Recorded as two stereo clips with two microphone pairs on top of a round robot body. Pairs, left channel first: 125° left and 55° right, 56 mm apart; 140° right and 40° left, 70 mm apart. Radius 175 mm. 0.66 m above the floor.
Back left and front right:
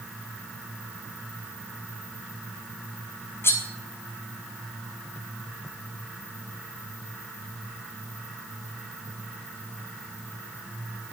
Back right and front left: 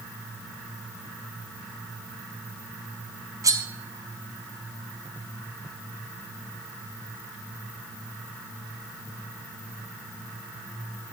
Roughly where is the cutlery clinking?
Left.